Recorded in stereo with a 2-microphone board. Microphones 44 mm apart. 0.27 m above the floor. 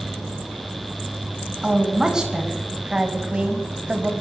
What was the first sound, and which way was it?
A woman speaking, 15° right (ahead or behind).